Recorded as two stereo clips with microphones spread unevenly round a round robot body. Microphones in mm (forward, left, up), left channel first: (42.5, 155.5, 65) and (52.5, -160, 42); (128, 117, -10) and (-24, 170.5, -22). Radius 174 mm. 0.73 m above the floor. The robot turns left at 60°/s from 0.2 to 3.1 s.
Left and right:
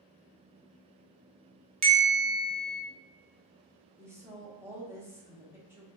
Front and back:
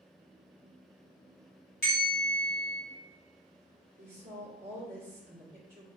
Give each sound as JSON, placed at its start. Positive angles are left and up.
{"t": 1.8, "sound": "a bell", "azimuth_deg": -65, "distance_m": 1.3}
{"t": 4.0, "sound": "a woman speaking", "azimuth_deg": -165, "distance_m": 1.1}